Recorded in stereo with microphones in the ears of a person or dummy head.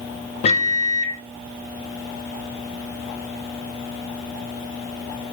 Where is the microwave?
30° left (ahead or behind), 0.5 m.